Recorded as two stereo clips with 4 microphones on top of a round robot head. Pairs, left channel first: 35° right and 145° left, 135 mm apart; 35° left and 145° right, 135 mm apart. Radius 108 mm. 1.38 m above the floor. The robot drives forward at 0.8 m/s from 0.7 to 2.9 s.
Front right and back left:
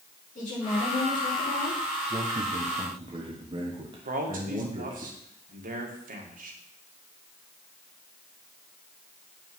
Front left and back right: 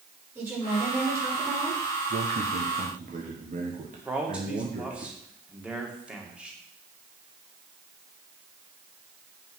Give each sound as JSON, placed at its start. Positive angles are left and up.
{"t": 0.3, "sound": "a woman speaking", "azimuth_deg": -70, "distance_m": 5.5}
{"t": 2.1, "sound": "a man speaking", "azimuth_deg": -150, "distance_m": 0.9}
{"t": 4.0, "sound": "a man speaking", "azimuth_deg": 135, "distance_m": 2.0}